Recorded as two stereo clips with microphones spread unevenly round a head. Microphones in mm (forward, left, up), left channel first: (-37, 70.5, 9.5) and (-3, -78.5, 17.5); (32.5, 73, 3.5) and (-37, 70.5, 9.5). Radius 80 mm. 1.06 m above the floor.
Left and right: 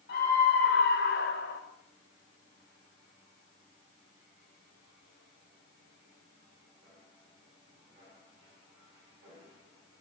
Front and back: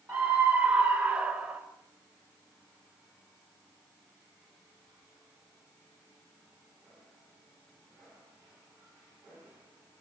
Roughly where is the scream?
Behind left.